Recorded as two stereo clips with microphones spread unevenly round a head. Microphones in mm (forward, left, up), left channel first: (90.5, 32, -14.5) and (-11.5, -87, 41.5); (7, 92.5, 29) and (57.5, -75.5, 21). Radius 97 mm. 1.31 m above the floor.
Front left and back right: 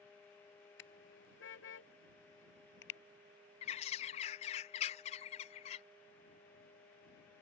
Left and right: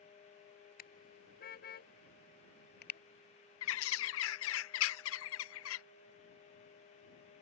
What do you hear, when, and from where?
0.8 s a car horn: 70° left; by 3.0 s 75° left
3.6 s a bird: 115° left